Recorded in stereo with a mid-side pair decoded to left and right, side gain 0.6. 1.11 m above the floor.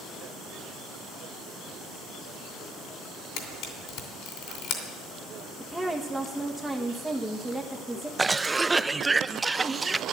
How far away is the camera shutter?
About 2.5 m.